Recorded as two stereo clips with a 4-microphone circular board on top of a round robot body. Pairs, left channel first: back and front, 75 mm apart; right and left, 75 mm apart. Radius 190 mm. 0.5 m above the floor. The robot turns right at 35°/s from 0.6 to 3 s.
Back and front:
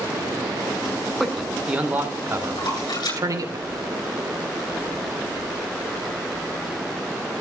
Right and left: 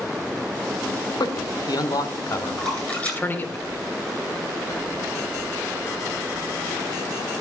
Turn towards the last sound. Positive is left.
turn(degrees=-160)